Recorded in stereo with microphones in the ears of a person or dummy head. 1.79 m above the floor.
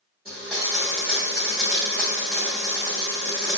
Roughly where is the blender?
Centre.